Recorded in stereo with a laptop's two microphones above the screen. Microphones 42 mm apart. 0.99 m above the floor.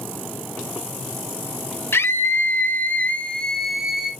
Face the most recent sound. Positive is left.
turn(degrees=-20)  # may be behind; listen again after turning